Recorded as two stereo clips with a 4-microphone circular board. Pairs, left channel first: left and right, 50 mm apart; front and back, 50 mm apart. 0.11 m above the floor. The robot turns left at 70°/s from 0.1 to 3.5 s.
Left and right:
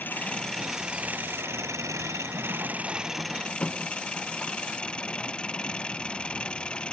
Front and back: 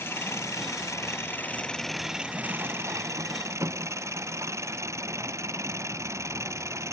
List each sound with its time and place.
0.0 s an engine running: 40° left; by 7.0 s 160° left